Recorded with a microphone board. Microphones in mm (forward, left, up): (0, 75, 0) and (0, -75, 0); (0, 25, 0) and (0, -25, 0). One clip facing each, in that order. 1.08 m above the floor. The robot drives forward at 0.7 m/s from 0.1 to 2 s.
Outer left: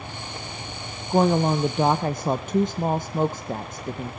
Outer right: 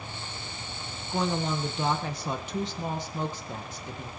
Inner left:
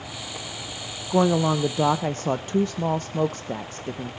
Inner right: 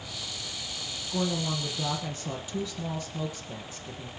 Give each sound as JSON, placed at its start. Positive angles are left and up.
{"t": 1.1, "sound": "a woman speaking", "side_deg": 45, "distance_m": 0.7}